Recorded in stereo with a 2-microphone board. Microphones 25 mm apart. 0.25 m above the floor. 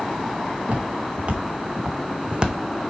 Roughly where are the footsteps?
Right.